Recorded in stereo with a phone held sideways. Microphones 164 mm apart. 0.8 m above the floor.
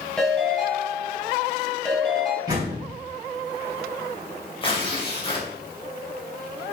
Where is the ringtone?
5° left (ahead or behind), 3.5 m.